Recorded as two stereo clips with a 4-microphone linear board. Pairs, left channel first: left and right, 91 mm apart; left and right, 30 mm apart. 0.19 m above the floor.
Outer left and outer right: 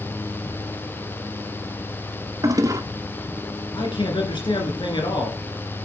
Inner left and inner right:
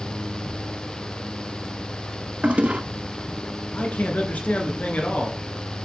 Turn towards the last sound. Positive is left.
turn(degrees=65)  # may be behind; listen again after turning